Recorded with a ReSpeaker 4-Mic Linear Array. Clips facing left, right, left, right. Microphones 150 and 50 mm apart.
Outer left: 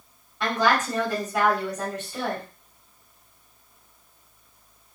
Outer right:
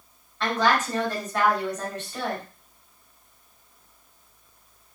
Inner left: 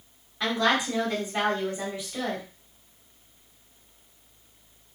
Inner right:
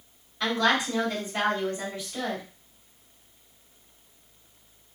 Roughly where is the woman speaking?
Centre.